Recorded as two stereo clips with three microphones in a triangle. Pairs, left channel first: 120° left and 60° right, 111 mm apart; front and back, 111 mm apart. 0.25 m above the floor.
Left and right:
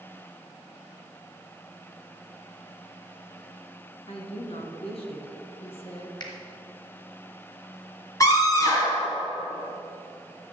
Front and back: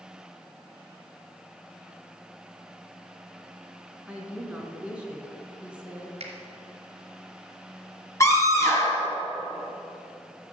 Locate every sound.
4.1 s a woman speaking: 100° left, 2.5 m
6.2 s a finger snap: 170° left, 2.5 m
8.2 s a scream: 60° left, 3 m